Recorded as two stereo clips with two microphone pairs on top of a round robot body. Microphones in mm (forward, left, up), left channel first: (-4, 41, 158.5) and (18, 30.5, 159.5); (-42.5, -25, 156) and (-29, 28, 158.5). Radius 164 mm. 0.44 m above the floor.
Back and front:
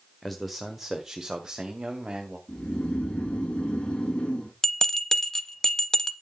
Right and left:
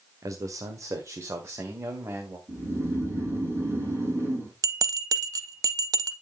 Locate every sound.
0.2 s a man speaking: 75° left, 1.9 m; by 2.4 s 30° left, 3 m
2.5 s snoring: 120° left, 7.5 m
4.6 s a bell: 85° left, 0.7 m